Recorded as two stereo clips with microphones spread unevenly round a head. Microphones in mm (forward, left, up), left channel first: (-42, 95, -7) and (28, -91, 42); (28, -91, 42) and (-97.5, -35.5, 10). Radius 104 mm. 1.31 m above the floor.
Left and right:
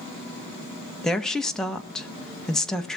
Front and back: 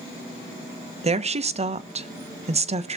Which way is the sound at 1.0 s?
160° right.